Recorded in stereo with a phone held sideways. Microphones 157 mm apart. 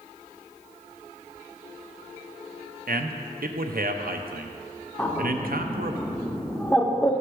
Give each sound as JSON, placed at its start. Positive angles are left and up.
{"t": 2.9, "sound": "a man speaking", "side_deg": -70, "distance_m": 0.5}
{"t": 5.0, "sound": "a bird", "side_deg": 10, "distance_m": 0.6}